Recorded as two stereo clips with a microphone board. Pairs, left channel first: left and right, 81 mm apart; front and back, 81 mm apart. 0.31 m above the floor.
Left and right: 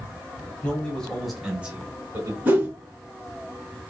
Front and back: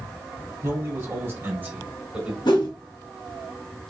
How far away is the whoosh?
About 1.1 m.